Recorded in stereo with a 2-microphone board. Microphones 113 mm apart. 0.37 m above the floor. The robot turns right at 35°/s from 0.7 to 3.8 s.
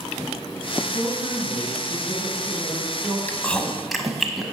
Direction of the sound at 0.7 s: 115° right.